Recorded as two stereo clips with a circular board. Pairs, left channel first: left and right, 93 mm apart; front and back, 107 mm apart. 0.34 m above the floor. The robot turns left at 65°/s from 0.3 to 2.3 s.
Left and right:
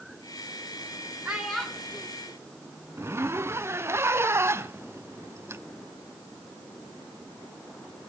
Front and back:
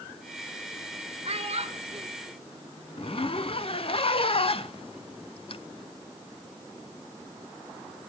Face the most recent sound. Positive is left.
turn(degrees=-25)